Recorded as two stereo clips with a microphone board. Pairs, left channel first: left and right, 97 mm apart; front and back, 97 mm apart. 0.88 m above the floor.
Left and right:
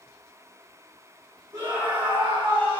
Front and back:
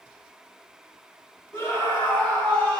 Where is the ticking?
No ticking in this recording.